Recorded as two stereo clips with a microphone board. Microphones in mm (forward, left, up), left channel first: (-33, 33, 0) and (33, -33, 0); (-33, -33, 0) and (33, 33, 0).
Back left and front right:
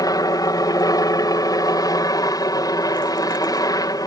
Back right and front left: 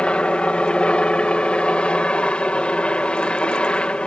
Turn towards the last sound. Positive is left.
turn(degrees=150)